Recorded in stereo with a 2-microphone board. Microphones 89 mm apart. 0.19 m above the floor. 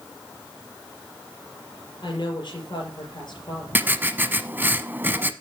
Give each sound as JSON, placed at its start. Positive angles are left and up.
{"t": 2.0, "sound": "a woman speaking", "side_deg": 55, "distance_m": 5.5}
{"t": 3.8, "sound": "writing", "side_deg": -20, "distance_m": 0.8}